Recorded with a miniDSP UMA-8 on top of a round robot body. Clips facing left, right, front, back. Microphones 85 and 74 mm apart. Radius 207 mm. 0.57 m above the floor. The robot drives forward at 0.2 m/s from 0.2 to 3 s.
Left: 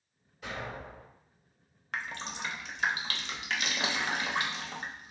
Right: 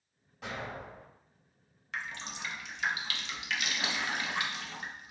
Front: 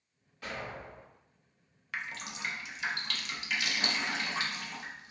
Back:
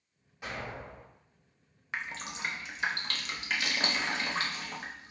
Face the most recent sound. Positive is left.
turn(degrees=140)